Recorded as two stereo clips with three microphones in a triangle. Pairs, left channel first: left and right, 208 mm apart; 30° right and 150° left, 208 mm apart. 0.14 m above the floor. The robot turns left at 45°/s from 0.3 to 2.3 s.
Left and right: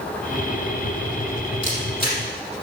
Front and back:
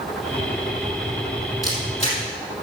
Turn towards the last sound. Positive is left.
turn(degrees=15)